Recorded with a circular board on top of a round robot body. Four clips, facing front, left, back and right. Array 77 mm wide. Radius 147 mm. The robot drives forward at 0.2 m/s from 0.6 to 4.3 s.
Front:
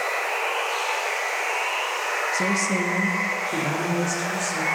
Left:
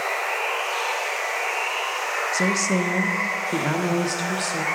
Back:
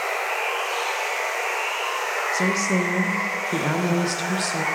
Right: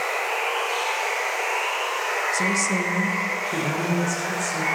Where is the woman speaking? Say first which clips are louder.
Left 1 dB, back 3 dB; 85° left, 0.6 m; by 4.7 s 150° left, 0.7 m.